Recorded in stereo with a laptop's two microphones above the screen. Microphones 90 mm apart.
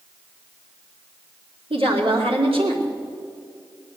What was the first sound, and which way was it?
A woman speaking, 75° right (ahead or behind).